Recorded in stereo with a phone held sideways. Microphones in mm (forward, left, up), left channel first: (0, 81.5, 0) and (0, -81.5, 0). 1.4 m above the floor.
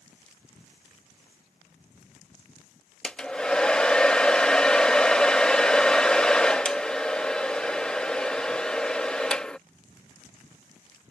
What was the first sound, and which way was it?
A hair dryer, 5° left (ahead or behind).